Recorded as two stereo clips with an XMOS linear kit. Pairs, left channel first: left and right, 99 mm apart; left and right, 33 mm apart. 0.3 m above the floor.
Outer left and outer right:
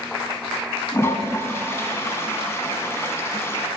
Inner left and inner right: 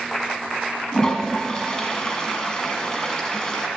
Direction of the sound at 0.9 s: 25° left (ahead or behind).